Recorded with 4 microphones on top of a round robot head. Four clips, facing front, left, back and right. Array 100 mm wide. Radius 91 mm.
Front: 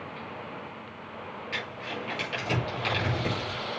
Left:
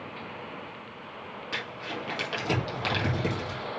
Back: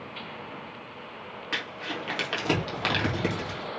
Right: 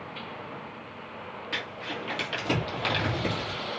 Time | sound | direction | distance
1.5 | crumpling | 165° left | 3 m